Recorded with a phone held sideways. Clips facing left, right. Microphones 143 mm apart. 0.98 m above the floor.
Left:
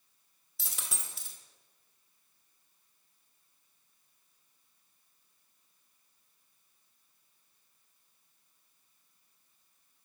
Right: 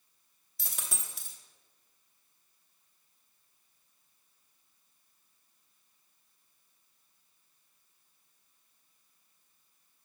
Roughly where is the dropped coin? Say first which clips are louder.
Right 1 dB; centre.